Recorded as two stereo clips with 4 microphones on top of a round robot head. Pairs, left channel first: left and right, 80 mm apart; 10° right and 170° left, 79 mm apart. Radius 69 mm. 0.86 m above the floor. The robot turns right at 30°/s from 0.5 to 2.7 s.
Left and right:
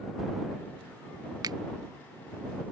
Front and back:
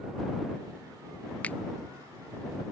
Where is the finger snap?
80° right; by 1.6 s 75° right.